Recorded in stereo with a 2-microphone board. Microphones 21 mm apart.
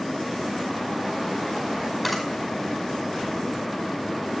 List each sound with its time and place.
2.0 s a camera shutter: 10° left (ahead or behind), 4.5 m